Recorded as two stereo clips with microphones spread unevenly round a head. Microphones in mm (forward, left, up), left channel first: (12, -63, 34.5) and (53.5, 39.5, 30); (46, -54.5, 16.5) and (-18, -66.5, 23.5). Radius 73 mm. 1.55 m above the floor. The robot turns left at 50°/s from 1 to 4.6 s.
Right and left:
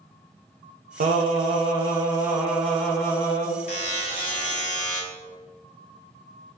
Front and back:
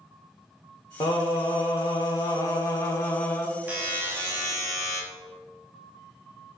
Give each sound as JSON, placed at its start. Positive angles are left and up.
{"t": 1.0, "sound": "singing", "azimuth_deg": 60, "distance_m": 0.8}
{"t": 3.7, "sound": "a buzzer", "azimuth_deg": -125, "distance_m": 0.8}